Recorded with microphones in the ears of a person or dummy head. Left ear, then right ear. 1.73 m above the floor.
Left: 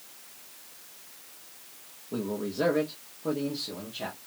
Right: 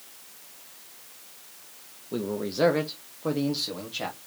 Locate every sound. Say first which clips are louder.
2.1 s a man speaking: right 2 dB; 15° right (ahead or behind), 0.7 m; by 4.2 s 60° right (ahead or behind), 1.5 m